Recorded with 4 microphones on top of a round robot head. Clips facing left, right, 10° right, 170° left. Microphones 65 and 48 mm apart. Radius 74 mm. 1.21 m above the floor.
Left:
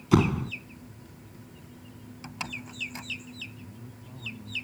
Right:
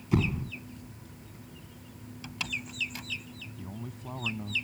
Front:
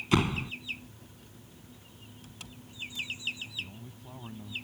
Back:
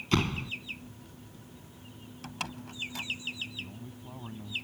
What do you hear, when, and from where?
0.1 s a door slam: 70° left
2.2 s a door slam: 155° left
3.6 s a man speaking: 105° right